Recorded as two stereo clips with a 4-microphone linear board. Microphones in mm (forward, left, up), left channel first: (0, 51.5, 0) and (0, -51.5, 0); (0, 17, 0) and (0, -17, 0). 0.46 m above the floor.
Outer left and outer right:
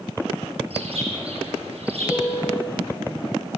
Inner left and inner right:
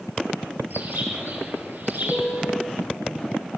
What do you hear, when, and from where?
0.7 s a bird: 65° right (ahead or behind), 6.5 m
2.1 s a piano: 5° left (ahead or behind), 9.5 m